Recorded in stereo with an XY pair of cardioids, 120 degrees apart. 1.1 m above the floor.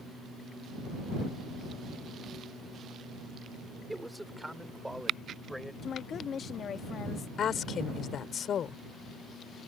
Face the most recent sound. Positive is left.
turn(degrees=50)